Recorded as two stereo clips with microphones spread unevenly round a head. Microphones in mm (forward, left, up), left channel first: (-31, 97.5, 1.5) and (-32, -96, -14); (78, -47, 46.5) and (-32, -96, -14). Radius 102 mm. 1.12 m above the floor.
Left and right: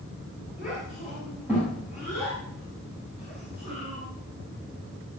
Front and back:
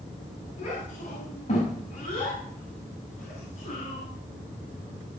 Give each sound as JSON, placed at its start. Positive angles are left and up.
{"t": 0.6, "sound": "a child speaking", "azimuth_deg": -5, "distance_m": 6.0}